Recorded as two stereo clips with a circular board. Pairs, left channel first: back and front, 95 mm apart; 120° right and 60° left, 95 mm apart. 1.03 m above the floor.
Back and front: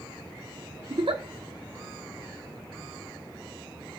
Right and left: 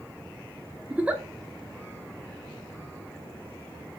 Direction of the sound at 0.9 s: 15° right.